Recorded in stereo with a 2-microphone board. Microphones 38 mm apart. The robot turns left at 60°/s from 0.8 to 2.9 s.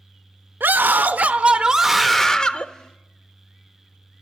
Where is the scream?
105° right, 0.7 m; by 2.7 s 140° left, 0.7 m.